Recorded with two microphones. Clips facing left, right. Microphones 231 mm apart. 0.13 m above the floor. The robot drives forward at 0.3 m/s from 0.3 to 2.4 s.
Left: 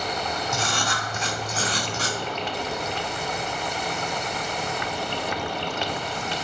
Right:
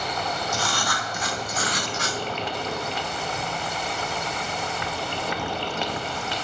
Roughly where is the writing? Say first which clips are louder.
Even; left.